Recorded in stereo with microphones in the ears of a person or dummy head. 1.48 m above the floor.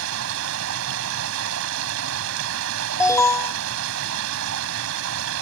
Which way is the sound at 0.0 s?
70° right (ahead or behind).